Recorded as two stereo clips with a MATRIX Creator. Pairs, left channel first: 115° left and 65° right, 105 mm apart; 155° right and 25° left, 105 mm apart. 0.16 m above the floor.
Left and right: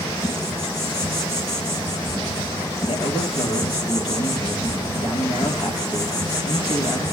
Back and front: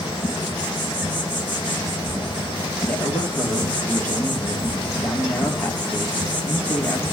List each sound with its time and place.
0.0 s an insect: 170° left, 6.5 m
2.9 s a man speaking: 130° left, 4 m